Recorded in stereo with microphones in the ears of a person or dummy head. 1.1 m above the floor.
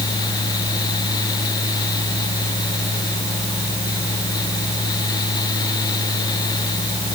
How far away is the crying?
No crying in this recording.